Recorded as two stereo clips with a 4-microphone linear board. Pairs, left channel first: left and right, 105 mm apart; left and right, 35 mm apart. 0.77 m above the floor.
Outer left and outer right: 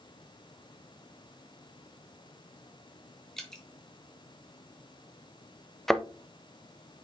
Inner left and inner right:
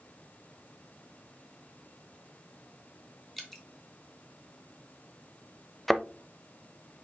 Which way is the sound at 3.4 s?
5° left (ahead or behind).